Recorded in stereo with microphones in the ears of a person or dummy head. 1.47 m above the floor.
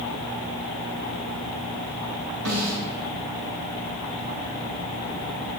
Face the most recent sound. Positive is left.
turn(degrees=-75)  # may be behind; listen again after turning